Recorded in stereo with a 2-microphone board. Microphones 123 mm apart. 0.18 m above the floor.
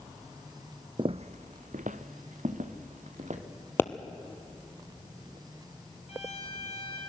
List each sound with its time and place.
1.0 s footsteps: 40° right (ahead or behind), 0.6 m; by 3.4 s 70° right (ahead or behind), 3 m
3.8 s a pop: 15° left (ahead or behind), 1.1 m
6.1 s a violin: 55° left (ahead or behind), 5 m